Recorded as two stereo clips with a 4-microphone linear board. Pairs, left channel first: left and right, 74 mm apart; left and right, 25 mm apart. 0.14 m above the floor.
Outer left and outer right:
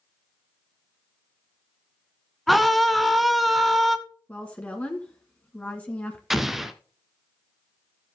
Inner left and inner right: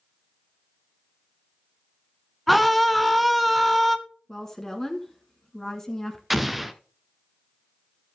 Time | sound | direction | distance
2.5 | a scream | centre (ahead or behind) | 1.2 m
4.3 | a woman speaking | 20° left (ahead or behind) | 1.5 m
6.3 | an explosion | 5° right (ahead or behind) | 0.9 m